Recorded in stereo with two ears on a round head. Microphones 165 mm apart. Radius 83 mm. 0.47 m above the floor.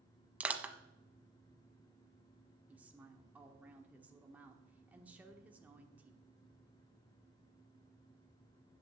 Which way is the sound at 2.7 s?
10° right (ahead or behind).